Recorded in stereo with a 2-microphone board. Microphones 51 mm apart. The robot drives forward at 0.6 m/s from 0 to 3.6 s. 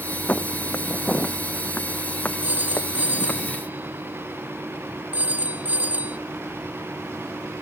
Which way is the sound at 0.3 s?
35° left (ahead or behind).